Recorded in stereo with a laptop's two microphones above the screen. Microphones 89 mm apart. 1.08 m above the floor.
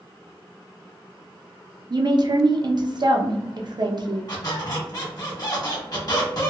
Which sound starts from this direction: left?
A squeak, at 4.3 s.